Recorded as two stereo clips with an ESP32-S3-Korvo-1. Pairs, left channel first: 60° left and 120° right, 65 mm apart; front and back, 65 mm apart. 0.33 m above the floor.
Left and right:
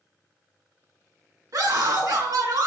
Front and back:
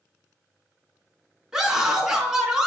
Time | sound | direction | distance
1.5 | a scream | 100° right | 4 m